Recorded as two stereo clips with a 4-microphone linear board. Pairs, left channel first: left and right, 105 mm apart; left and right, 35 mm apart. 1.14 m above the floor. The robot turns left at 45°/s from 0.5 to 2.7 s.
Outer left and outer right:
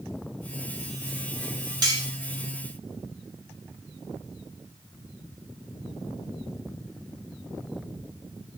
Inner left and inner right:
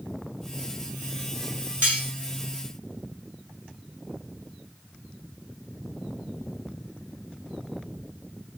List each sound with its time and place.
1.8 s cutlery clinking: 40° right (ahead or behind), 1.0 m; by 2.0 s 45° right (ahead or behind), 1.0 m